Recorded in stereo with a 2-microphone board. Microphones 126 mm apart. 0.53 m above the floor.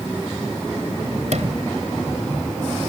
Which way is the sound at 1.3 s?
65° right (ahead or behind).